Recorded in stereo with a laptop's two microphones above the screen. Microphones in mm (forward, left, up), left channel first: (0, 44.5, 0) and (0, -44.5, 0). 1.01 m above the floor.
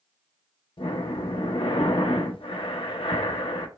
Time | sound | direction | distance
0.8 | breathing | 85° left | 0.6 m